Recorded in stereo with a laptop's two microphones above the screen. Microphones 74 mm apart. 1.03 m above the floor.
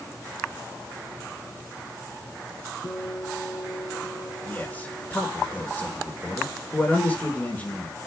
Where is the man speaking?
25° left (ahead or behind), 4 m.